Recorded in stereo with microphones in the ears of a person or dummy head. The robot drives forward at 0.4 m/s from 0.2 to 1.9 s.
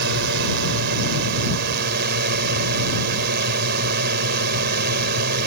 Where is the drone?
70° right (ahead or behind); by 5.5 s 65° right (ahead or behind).